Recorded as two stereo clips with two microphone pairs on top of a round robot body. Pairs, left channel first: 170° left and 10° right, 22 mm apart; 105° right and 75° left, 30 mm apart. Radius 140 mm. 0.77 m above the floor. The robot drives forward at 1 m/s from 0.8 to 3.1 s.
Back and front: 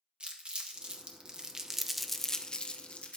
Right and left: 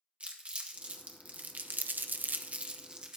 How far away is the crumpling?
About 1.6 m.